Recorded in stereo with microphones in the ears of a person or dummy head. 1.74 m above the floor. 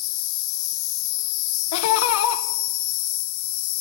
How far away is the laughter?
About 1.8 m.